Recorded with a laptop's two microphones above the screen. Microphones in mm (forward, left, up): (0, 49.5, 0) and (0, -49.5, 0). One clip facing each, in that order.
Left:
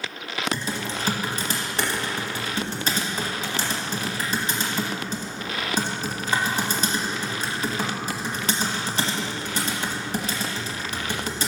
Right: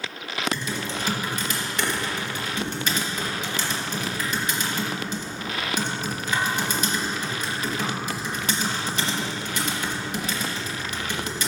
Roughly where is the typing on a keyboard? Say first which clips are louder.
Even; left.